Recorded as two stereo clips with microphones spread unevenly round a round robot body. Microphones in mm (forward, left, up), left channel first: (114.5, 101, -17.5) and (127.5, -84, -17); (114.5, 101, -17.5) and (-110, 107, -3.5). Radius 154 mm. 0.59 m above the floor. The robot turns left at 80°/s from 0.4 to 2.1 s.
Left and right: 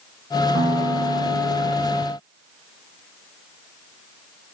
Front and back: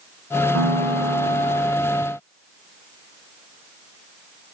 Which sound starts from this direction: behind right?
A piano, at 0.5 s.